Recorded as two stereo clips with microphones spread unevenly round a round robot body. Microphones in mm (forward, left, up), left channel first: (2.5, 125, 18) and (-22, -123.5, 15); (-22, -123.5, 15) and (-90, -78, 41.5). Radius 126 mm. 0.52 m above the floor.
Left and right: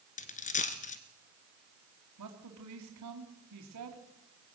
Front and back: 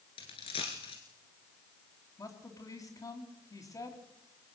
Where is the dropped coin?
20° left, 1.5 m.